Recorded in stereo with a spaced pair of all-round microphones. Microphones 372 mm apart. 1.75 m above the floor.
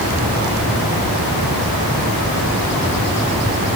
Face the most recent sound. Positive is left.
No sound to turn to.